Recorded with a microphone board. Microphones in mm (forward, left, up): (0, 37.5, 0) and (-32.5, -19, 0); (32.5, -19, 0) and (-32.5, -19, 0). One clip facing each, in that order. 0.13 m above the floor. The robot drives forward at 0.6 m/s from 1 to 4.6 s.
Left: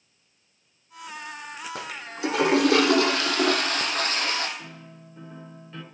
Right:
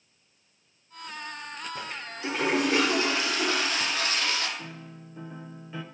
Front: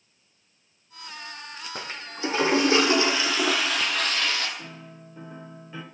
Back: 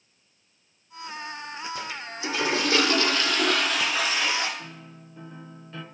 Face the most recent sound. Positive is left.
turn(degrees=-55)